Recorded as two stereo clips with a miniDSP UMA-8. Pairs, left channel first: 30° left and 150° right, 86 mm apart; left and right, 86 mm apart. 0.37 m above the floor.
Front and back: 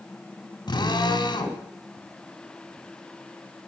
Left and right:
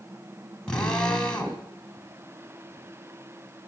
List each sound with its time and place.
0.7 s a drill: 10° left, 2.5 m